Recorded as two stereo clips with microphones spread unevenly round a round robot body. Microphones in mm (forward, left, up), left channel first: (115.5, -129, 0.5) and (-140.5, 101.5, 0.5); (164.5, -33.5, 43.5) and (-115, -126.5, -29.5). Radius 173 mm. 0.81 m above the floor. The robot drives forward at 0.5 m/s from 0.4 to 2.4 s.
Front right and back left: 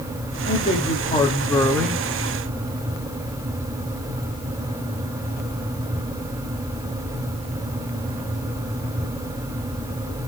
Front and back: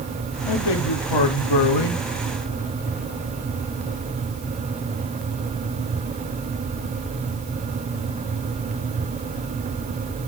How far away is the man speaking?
About 1.6 m.